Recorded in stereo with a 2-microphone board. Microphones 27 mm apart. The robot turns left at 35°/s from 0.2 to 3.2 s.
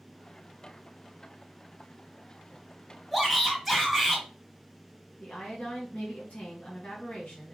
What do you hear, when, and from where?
3.1 s a shout: 10° right (ahead or behind), 1.3 m; by 4.2 s 5° right (ahead or behind), 1.3 m
5.2 s a woman speaking: 75° left (ahead or behind), 1.7 m